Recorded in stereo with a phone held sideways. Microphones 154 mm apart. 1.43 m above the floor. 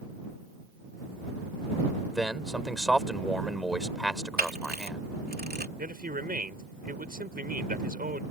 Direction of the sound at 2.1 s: Centre (ahead or behind).